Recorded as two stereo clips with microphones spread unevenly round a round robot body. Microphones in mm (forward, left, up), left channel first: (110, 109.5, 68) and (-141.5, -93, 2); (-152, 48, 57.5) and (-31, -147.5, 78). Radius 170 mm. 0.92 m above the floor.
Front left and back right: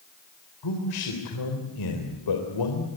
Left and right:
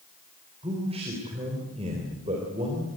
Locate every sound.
0.6 s a man speaking: 15° left, 4 m